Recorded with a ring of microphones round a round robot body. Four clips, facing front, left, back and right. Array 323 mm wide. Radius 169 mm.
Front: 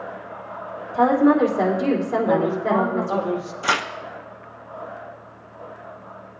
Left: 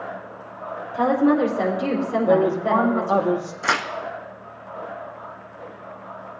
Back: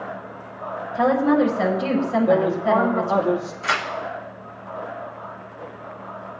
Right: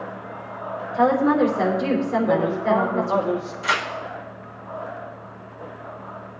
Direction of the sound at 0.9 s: 15° left.